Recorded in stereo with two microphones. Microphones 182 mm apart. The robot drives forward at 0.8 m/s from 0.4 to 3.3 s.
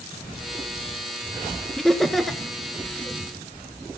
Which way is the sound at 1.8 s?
Centre (ahead or behind).